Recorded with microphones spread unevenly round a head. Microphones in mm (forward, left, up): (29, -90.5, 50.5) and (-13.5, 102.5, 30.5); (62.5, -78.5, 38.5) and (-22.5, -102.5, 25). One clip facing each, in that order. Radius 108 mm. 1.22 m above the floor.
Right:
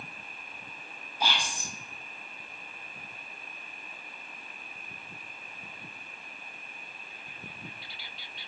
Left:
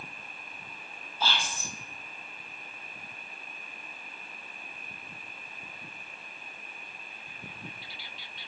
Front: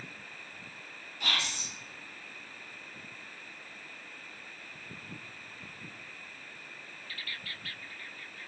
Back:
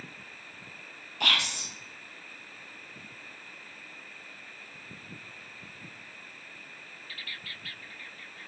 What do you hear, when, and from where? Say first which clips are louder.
1.2 s whispering: even, back 4 dB; 155° right, 0.6 m